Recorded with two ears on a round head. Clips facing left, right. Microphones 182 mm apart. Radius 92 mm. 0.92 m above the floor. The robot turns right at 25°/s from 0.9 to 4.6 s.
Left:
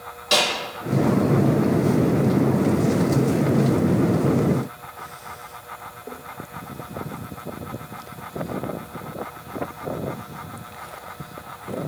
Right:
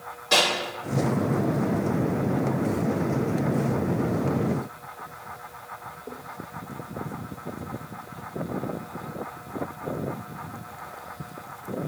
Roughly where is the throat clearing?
I don't hear throat clearing.